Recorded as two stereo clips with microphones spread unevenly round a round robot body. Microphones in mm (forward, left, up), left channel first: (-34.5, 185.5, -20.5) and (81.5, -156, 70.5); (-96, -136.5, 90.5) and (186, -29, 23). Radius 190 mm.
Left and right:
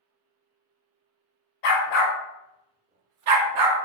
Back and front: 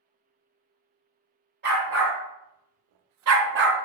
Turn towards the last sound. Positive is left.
turn(degrees=-40)